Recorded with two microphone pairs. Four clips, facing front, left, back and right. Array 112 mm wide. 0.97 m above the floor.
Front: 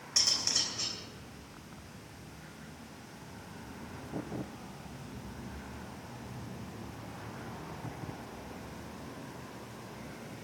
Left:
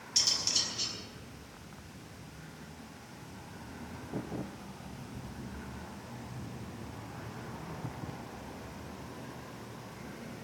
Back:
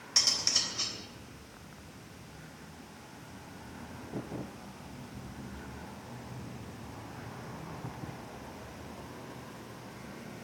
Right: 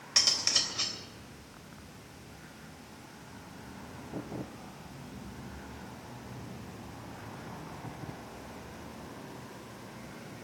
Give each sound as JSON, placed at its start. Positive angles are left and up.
{"t": 0.2, "sound": "cutlery clinking", "azimuth_deg": -105, "distance_m": 3.0}